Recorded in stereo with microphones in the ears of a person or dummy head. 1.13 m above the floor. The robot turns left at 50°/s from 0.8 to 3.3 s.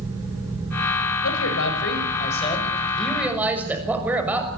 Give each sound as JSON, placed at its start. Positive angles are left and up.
{"t": 1.2, "sound": "a man speaking", "azimuth_deg": 90, "distance_m": 6.5}